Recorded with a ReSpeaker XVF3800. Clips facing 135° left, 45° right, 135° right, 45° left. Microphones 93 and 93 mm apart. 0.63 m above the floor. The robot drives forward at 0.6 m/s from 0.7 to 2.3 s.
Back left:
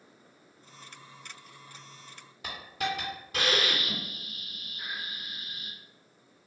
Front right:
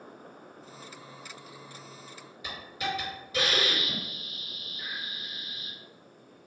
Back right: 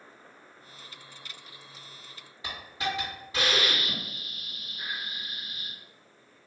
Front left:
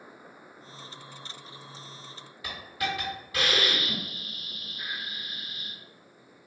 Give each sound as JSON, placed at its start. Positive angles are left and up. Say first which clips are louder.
{"t": 2.4, "sound": "a hiss", "louder": "back left 1 dB, front left 1 dB", "azimuth_deg": 160, "distance_m": 1.6}